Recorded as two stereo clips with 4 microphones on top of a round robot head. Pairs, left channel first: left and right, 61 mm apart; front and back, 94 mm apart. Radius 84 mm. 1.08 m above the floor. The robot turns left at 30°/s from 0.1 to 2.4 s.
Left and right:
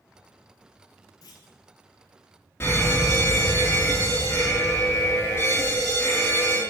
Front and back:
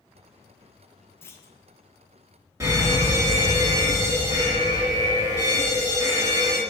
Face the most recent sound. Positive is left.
turn(degrees=130)